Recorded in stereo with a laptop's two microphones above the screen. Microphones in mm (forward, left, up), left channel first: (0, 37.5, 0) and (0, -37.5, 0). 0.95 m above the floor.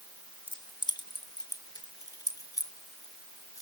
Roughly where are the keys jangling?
Left.